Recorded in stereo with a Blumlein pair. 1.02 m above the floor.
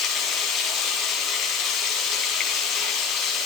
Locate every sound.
0.0 s running water: 35° left, 3 m